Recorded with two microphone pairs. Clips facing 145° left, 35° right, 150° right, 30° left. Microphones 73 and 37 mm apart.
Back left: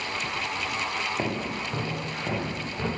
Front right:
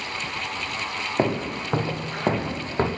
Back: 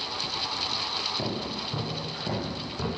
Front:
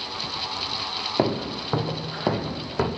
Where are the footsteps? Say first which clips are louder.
Front right 5 dB, front 7 dB; 20° left, 2.0 m; by 2.9 s straight ahead, 2.5 m.